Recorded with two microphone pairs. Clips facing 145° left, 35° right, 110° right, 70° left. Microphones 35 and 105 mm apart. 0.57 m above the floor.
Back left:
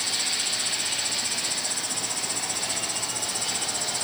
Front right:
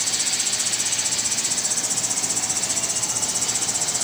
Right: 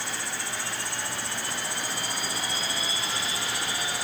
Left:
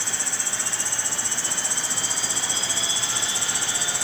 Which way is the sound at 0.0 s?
80° left.